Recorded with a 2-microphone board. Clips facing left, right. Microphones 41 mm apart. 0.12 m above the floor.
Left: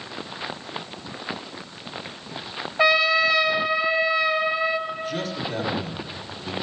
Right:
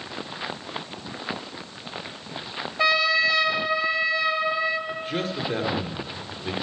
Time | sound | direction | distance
2.8 | a trumpet | 20° left (ahead or behind) | 0.7 m
4.9 | a man speaking | 40° right (ahead or behind) | 1.5 m